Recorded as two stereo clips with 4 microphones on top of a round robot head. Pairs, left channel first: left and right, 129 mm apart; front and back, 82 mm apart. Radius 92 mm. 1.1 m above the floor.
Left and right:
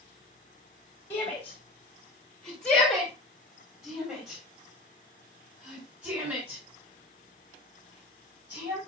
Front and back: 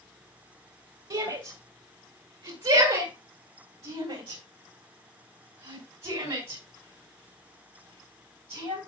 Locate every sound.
1.1 s a shout: 165° left, 2.5 m; by 8.8 s 165° right, 6.5 m